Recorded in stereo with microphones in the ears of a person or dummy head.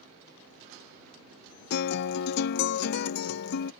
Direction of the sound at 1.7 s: 65° left (ahead or behind).